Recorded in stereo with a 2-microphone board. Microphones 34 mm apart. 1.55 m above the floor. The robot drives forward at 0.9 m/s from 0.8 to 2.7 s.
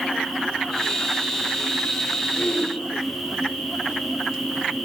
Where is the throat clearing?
65° left (ahead or behind), 6 m; by 2.7 s 70° left (ahead or behind), 5.5 m.